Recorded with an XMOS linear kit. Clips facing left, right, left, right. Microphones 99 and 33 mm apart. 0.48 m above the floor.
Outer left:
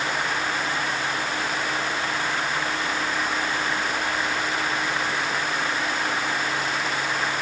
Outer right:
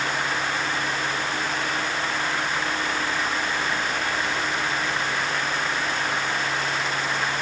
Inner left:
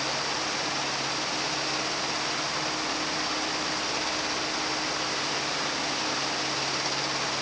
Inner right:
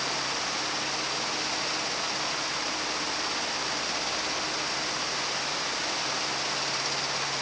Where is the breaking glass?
No breaking glass in this recording.